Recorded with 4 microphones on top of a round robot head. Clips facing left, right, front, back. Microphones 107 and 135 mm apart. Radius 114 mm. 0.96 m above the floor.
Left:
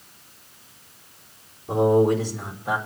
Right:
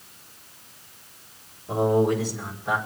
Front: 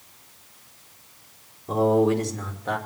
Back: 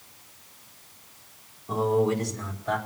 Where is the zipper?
No zipper in this recording.